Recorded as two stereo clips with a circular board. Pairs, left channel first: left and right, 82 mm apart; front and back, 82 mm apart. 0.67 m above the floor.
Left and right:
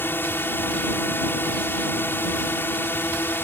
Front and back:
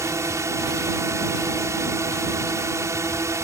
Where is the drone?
145° left.